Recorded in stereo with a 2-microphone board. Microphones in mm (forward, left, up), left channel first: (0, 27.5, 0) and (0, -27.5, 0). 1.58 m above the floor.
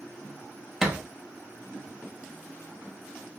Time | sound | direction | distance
0.8 | a thud | 10° right (ahead or behind) | 0.9 m